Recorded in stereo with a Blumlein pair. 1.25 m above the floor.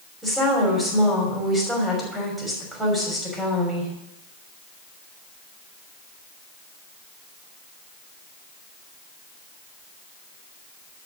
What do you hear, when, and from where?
0.2 s a woman speaking: 5° right, 5.5 m